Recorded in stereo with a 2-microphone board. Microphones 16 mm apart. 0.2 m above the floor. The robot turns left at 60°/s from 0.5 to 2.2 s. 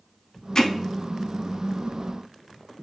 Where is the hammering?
25° left (ahead or behind), 0.7 m; by 0.7 s 20° left (ahead or behind), 0.7 m.